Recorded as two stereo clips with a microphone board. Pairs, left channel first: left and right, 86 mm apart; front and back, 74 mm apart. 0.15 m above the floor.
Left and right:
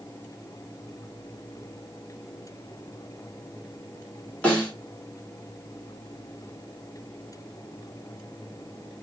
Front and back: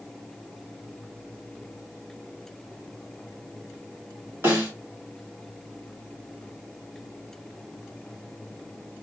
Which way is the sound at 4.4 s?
160° left.